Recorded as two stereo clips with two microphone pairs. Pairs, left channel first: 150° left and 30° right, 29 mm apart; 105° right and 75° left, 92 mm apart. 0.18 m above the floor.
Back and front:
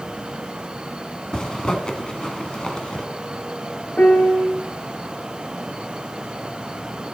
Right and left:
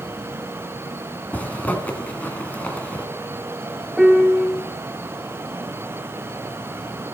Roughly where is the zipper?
Behind.